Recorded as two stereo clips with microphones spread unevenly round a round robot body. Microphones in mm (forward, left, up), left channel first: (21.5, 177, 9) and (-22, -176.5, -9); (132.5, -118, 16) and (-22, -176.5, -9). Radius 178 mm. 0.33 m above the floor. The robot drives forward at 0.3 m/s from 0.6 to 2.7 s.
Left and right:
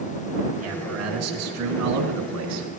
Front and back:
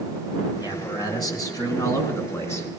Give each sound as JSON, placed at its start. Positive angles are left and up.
{"t": 0.6, "sound": "a man speaking", "azimuth_deg": -45, "distance_m": 3.5}